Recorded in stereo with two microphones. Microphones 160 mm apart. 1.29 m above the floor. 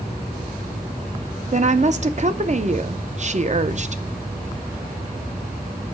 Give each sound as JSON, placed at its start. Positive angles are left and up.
{"t": 1.5, "sound": "a woman speaking", "side_deg": -45, "distance_m": 0.6}